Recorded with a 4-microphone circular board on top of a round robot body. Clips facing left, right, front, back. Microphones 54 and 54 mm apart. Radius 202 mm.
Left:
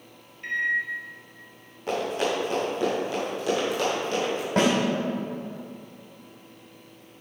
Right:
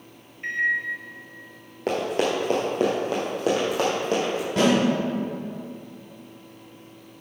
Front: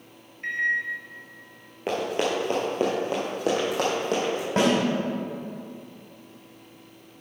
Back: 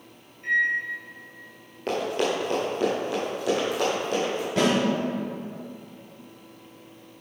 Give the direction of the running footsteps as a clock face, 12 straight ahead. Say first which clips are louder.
Right 3 dB, even; 3 o'clock.